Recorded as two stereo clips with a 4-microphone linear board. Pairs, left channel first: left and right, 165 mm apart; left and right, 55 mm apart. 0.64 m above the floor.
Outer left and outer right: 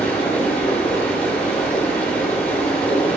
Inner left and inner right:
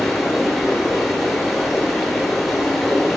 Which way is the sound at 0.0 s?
10° left (ahead or behind).